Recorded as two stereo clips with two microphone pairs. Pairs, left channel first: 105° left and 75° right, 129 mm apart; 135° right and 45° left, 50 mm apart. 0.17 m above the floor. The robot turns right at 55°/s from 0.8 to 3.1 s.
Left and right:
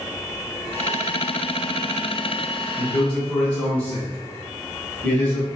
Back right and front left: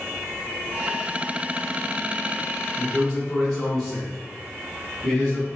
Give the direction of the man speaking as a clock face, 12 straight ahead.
7 o'clock.